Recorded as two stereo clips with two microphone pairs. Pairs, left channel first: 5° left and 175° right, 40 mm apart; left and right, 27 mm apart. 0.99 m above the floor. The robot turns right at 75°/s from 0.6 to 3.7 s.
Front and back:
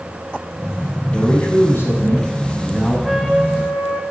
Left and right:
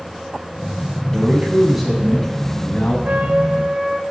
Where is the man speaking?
60° right, 6.5 m; by 3.0 s 75° left, 6.5 m.